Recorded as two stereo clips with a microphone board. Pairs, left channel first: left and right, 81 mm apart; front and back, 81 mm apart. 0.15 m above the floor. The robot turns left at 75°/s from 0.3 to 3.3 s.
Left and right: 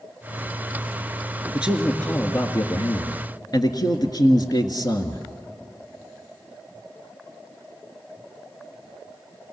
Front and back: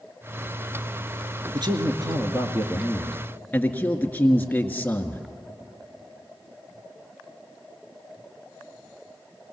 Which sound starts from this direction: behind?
A man speaking, at 1.5 s.